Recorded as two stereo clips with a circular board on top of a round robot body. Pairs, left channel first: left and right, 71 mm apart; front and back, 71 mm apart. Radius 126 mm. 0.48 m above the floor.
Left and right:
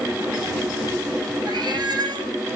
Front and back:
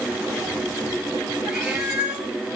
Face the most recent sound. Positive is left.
turn(degrees=-105)